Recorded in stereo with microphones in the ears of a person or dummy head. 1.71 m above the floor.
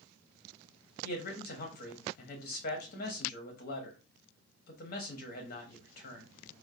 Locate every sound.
1.0 s a man speaking: 55° left (ahead or behind), 0.9 m